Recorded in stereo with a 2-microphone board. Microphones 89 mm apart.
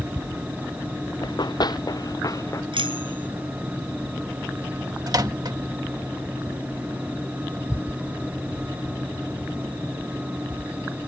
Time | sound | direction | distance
1.2 | running footsteps | 55° left (ahead or behind) | ?
2.7 | a bicycle bell | 70° right (ahead or behind) | ?
5.1 | a microwave | 50° right (ahead or behind) | ?